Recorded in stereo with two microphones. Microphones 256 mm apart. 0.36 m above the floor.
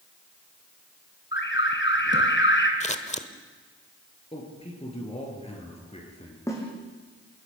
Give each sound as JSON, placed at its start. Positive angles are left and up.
{"t": 1.3, "sound": "an alarm", "side_deg": 50, "distance_m": 2.5}
{"t": 2.8, "sound": "scissors", "side_deg": 25, "distance_m": 1.2}
{"t": 4.3, "sound": "a man speaking", "side_deg": 25, "distance_m": 6.0}
{"t": 6.5, "sound": "a snare drum", "side_deg": 10, "distance_m": 5.5}